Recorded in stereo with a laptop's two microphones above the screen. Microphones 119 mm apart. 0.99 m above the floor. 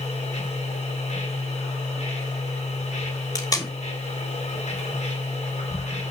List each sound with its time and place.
0.0 s a machine running: 70° left (ahead or behind), 3.5 m
3.4 s tape being pulled: 30° left (ahead or behind), 2.5 m